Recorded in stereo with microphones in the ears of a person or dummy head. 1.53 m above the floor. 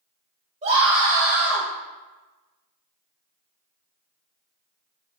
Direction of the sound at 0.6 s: 40° right (ahead or behind).